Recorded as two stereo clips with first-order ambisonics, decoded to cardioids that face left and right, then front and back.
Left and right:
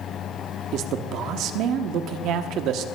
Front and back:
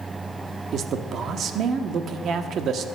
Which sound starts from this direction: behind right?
A man speaking, at 0.7 s.